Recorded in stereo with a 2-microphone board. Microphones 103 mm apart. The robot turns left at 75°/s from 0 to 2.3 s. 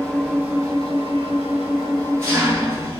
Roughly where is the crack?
I don't hear a crack.